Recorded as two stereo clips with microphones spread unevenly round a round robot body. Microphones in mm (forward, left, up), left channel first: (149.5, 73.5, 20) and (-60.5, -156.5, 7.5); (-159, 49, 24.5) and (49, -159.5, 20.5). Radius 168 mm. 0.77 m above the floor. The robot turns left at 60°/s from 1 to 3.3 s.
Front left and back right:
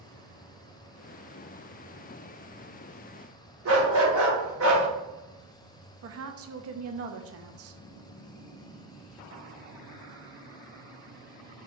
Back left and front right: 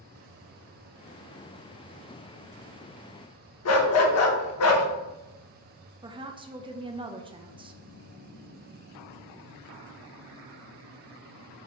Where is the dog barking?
175° left, 0.7 m.